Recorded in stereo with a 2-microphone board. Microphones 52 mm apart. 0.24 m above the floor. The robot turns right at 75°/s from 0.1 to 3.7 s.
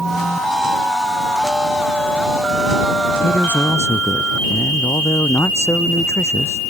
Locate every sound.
3.2 s a man speaking: 15° left; by 6.6 s 55° left